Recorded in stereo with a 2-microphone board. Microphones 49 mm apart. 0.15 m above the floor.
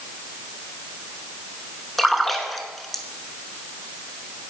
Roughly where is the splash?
Centre.